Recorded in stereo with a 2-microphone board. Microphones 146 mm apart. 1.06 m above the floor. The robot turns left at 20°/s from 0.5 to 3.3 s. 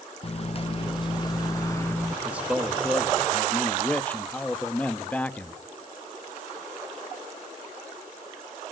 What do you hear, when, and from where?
0.2 s a microwave: 45° left, 0.7 m; by 2.1 s 15° left, 0.7 m
2.2 s a man speaking: 10° right (ahead or behind), 1.3 m; by 5.6 s 10° left (ahead or behind), 1.3 m